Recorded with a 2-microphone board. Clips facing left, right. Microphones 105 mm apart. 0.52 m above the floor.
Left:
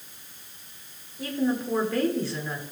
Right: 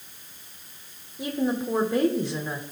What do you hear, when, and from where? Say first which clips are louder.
1.2 s a woman speaking: even; 20° right (ahead or behind), 1.1 m